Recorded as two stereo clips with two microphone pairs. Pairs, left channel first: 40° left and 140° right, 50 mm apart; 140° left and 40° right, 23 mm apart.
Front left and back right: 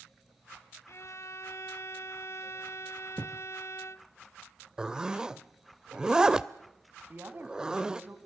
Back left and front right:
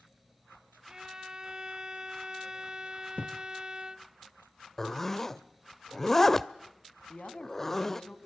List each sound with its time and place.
0.9 s a violin: 15° left, 0.7 m
3.2 s a thud: 90° left, 1.3 m
4.8 s a zipper: straight behind, 0.7 m
7.1 s a woman speaking: 175° left, 2.5 m